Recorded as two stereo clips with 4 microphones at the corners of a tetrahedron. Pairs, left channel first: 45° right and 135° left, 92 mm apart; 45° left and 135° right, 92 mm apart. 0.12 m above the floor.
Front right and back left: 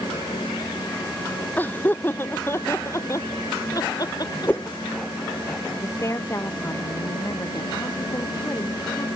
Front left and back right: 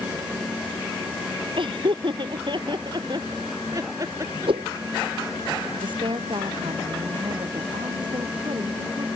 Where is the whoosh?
115° right.